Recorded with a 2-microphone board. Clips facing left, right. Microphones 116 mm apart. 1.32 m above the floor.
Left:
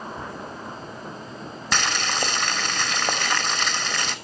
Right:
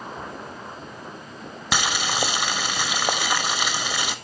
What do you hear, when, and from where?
1.7 s boiling: 10° right (ahead or behind), 1.2 m